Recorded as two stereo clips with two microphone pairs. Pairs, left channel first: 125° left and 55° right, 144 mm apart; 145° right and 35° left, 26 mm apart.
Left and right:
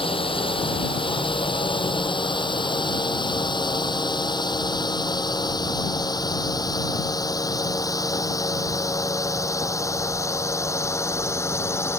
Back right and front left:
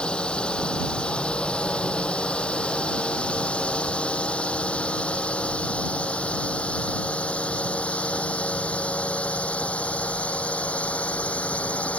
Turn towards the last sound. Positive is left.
turn(degrees=-165)